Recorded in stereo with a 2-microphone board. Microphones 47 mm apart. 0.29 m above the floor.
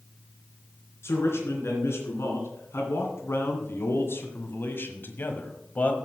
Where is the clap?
I don't hear a clap.